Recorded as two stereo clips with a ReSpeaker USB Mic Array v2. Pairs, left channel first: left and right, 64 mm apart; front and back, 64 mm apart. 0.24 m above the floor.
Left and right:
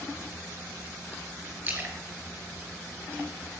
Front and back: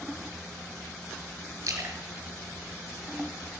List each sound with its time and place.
1.6 s a splash: 155° right, 4 m